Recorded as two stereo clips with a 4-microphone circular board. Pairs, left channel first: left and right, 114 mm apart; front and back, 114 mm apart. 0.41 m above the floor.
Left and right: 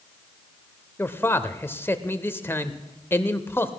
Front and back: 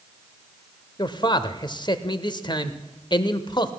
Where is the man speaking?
25° left, 1.0 m.